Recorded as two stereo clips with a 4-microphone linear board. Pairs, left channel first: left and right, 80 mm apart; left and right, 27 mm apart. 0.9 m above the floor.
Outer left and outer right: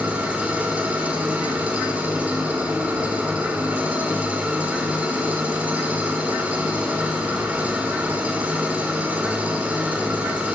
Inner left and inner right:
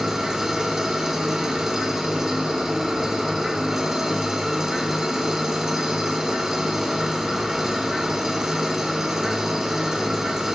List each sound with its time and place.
0.0 s an engine running: 20° right (ahead or behind), 2.5 m